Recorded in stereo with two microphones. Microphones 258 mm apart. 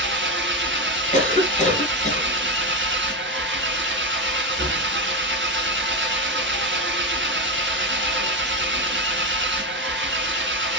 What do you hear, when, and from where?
0.0 s an engine running: 45° right (ahead or behind), 0.7 m
1.1 s a cough: 30° left (ahead or behind), 1.2 m